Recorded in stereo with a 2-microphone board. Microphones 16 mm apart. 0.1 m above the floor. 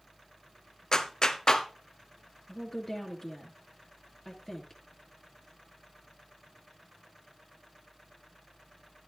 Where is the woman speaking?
25° left (ahead or behind), 2 m.